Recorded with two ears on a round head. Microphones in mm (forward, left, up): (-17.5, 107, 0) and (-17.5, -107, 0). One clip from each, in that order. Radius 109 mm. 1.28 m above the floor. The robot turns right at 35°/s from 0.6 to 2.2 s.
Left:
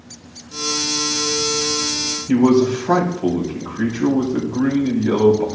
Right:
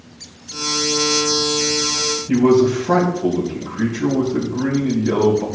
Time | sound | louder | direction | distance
2.3 | a man speaking | right 1 dB | 40° left (ahead or behind) | 3.5 m